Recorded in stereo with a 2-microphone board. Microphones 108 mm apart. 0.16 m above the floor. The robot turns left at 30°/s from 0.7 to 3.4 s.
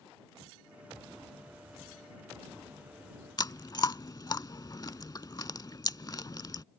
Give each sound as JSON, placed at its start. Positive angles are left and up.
{"t": 3.4, "sound": "chewing", "side_deg": 40}